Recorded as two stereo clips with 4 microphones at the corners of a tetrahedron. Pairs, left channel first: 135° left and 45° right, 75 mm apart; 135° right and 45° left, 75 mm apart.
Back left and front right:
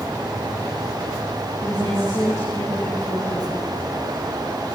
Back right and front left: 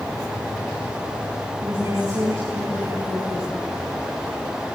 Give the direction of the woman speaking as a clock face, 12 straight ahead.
9 o'clock.